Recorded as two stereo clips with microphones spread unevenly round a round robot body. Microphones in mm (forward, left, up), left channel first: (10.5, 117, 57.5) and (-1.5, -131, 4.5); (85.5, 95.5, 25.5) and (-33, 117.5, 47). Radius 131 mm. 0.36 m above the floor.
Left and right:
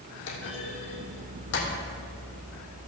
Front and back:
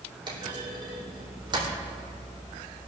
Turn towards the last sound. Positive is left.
turn(degrees=120)